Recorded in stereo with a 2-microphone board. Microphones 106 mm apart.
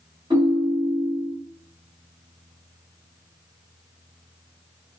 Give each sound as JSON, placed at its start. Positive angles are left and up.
{"t": 0.3, "sound": "a ringtone", "side_deg": -40, "distance_m": 1.9}